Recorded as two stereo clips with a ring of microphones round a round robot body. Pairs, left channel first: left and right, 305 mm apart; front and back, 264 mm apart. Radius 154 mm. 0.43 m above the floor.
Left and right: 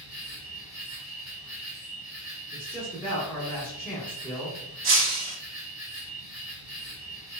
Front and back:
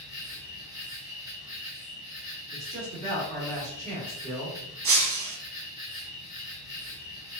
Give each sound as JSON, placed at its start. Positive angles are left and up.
{"t": 0.0, "sound": "an insect", "azimuth_deg": 180, "distance_m": 1.9}
{"t": 2.5, "sound": "a man speaking", "azimuth_deg": -165, "distance_m": 0.8}
{"t": 4.8, "sound": "breaking glass", "azimuth_deg": -140, "distance_m": 0.6}